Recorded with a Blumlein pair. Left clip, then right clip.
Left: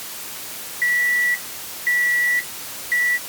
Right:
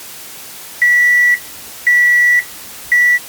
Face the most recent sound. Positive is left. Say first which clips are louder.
# right 9 dB
turn(degrees=-65)